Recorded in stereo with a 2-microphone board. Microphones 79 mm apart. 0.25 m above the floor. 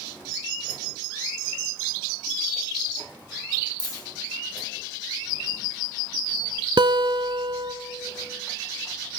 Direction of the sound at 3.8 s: 50° left (ahead or behind).